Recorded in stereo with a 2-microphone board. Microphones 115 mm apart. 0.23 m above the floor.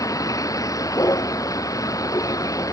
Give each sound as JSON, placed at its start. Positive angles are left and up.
{"t": 0.0, "sound": "a vehicle", "side_deg": 30}